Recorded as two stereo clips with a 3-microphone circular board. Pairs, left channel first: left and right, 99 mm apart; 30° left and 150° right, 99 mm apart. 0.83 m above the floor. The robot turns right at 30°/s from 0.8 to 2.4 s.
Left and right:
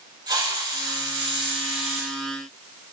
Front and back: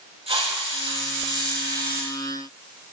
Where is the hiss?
135° right, 5.5 m; by 2.1 s 95° right, 5.5 m.